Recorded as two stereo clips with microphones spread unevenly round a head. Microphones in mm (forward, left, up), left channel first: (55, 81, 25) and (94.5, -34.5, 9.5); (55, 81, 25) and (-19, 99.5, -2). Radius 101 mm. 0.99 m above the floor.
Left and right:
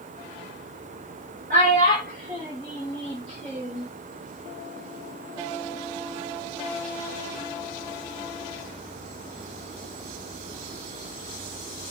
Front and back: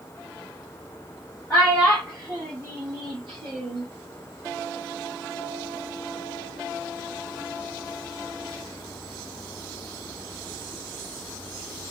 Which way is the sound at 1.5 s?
105° right.